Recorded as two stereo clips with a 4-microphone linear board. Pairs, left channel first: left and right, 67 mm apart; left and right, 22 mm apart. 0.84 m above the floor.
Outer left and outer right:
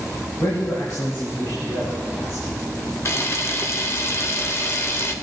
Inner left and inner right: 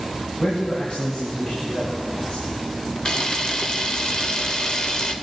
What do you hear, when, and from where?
0.4 s a man speaking: 80° left, 3.5 m
3.0 s a camera shutter: 45° left (ahead or behind), 0.7 m